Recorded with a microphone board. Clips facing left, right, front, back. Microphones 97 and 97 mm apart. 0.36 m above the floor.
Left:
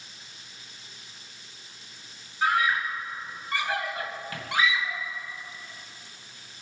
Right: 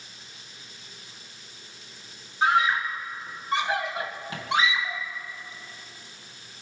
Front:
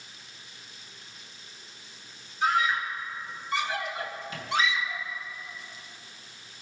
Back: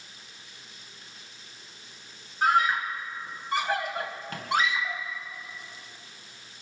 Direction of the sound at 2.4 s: 155° right.